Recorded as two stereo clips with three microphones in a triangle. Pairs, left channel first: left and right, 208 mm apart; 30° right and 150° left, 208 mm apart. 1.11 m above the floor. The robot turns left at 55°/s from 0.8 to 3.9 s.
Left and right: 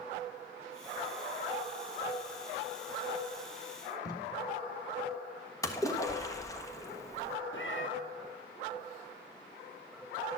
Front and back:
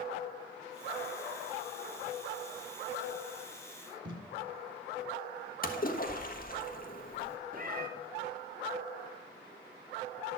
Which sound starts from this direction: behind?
Tape being pulled, at 4.0 s.